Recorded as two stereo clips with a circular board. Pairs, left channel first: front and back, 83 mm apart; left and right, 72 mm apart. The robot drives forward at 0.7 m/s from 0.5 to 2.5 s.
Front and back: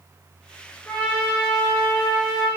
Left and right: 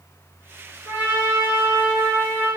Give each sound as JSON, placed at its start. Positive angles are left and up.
{"t": 0.8, "sound": "a trumpet", "azimuth_deg": -25, "distance_m": 1.5}